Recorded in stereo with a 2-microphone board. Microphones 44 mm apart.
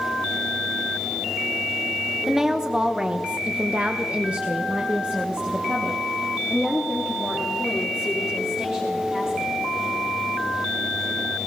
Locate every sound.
2.3 s a woman speaking: 10° right (ahead or behind), 1.1 m; by 9.5 s 20° right (ahead or behind), 4.5 m